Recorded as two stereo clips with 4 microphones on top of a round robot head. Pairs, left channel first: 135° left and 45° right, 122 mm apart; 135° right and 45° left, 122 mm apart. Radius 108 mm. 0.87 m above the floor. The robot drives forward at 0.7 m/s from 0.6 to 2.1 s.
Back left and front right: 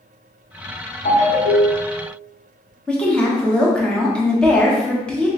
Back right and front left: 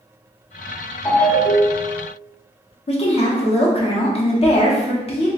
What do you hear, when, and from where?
1.1 s a ringtone: 150° left, 1.4 m; by 2.0 s 160° left, 2.0 m
2.9 s a woman speaking: 145° right, 1.2 m